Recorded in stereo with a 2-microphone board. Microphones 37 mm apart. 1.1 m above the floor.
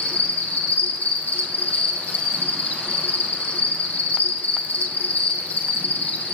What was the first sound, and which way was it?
An insect, 60° left (ahead or behind).